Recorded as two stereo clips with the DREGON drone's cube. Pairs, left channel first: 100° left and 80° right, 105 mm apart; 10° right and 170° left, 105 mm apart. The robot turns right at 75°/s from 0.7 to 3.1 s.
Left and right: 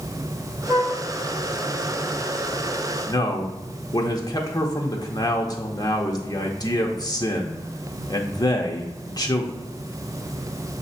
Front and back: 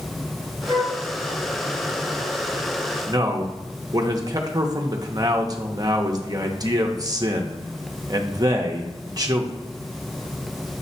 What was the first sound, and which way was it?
A flute, 155° left.